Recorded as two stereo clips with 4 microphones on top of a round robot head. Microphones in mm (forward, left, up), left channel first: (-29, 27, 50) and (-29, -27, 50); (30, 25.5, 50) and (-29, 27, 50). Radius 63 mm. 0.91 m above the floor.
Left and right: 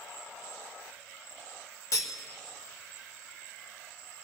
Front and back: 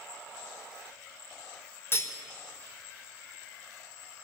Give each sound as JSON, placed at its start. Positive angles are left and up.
{"t": 1.9, "sound": "cutlery clinking", "azimuth_deg": 50, "distance_m": 1.6}